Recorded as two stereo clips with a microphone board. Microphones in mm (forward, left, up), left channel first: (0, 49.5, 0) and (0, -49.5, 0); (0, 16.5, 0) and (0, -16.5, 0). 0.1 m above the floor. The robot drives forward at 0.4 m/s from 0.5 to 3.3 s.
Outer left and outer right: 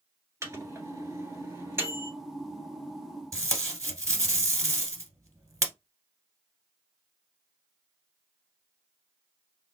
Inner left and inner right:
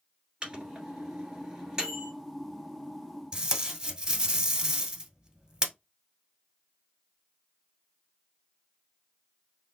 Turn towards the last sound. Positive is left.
turn(degrees=-30)  # may be behind; listen again after turning